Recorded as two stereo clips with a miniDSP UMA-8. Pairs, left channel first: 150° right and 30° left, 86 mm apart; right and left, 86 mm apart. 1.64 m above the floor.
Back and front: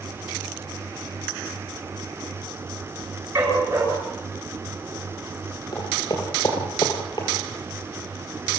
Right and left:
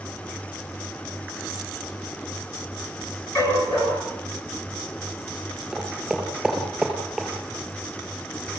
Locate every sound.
3.4 s a dog barking: 40° right, 8 m
5.7 s footsteps: straight behind, 7.5 m; by 7.3 s 175° left, 6.5 m